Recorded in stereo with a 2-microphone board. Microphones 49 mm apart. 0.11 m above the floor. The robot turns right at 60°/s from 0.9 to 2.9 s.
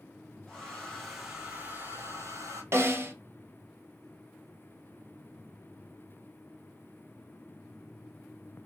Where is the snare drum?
55° right (ahead or behind), 0.6 m; by 3.1 s 45° right (ahead or behind), 0.6 m.